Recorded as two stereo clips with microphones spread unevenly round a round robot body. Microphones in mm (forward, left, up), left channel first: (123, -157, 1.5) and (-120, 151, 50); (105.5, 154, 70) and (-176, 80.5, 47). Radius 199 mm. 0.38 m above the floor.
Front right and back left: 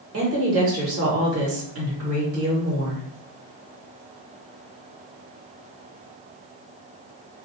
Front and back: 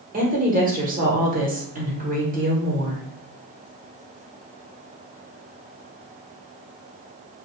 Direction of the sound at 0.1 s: 170° left.